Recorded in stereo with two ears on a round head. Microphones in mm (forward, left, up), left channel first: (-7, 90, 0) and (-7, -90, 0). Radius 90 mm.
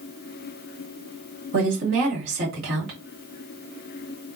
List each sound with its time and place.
1.5 s a woman speaking: 65° right (ahead or behind), 2 m